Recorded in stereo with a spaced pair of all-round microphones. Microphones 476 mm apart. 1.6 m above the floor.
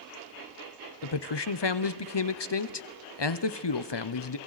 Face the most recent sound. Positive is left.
turn(degrees=60)  # may be behind; listen again after turning